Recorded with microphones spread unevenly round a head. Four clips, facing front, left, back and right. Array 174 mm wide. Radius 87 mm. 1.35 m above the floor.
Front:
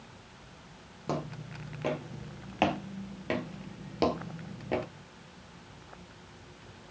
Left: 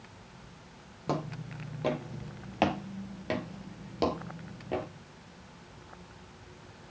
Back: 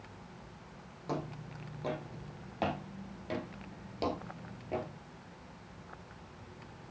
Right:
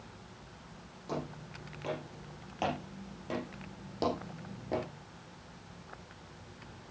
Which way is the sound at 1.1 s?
50° left.